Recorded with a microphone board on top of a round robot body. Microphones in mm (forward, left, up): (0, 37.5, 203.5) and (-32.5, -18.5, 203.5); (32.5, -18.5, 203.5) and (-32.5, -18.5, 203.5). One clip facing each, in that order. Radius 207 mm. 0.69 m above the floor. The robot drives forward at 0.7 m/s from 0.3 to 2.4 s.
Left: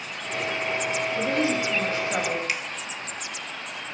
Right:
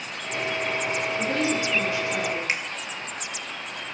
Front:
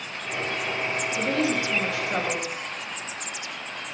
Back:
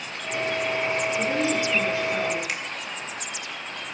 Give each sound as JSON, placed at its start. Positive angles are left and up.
{"t": 1.1, "sound": "a woman speaking", "azimuth_deg": 10, "distance_m": 5.5}
{"t": 2.5, "sound": "a finger snap", "azimuth_deg": 180, "distance_m": 1.8}